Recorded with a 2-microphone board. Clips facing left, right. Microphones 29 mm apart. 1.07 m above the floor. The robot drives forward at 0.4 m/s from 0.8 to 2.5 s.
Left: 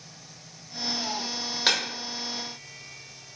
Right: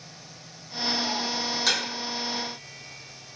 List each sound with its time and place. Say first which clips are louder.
1.7 s breaking glass: left 2 dB; 30° left (ahead or behind), 1.2 m